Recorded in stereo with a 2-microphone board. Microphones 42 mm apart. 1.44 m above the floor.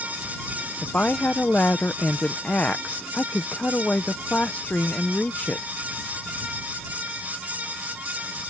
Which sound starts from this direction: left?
A woman speaking, at 0.8 s.